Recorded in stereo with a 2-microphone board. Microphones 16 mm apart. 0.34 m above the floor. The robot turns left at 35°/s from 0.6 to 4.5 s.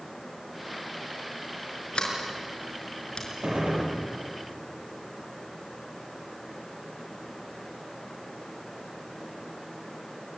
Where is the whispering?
No whispering in this recording.